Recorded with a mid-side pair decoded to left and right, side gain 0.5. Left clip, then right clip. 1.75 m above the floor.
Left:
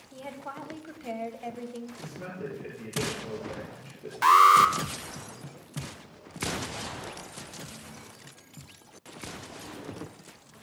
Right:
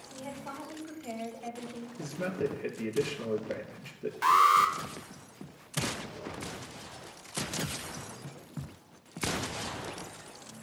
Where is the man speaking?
50° right, 4.5 m.